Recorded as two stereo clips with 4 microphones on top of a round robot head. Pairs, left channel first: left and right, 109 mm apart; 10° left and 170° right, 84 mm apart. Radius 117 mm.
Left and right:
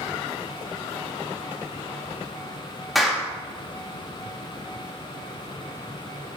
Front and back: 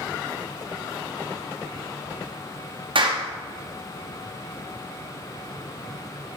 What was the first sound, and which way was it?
A clap, straight behind.